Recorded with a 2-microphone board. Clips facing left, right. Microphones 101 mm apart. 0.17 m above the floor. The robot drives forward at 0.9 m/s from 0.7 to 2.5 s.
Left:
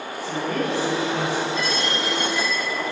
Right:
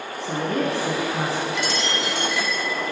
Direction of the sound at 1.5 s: 75° right (ahead or behind).